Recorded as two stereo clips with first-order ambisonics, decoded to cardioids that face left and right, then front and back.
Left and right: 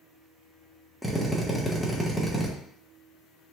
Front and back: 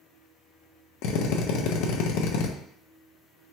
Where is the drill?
Straight ahead, 0.6 m.